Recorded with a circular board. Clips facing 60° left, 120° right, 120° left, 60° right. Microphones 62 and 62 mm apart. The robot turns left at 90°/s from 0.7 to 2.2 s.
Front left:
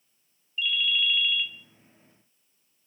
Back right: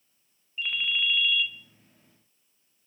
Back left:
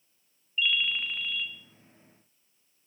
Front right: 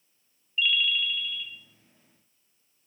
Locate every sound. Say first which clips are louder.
0.6 s a ringtone: front left 2 dB, front right 2 dB; 160° right, 0.5 m; by 1.5 s 130° left, 0.5 m